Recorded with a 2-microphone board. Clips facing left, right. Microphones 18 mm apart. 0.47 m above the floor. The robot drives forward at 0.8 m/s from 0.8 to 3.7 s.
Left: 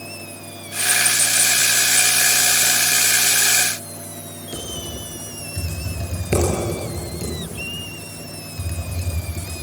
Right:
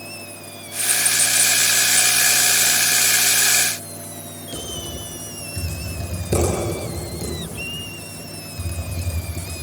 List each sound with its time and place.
4.5 s typing on a keyboard: 60° left (ahead or behind), 7.5 m